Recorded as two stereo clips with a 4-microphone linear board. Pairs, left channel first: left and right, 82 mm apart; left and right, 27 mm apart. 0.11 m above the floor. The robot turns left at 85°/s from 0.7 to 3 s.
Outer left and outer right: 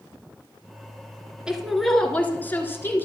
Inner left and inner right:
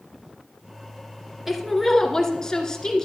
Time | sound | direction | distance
1.5 | a woman speaking | 10° right (ahead or behind) | 1.6 m